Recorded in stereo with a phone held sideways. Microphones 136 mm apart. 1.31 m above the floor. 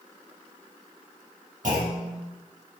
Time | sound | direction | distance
1.6 | a clunk | 75° right (ahead or behind) | 3 m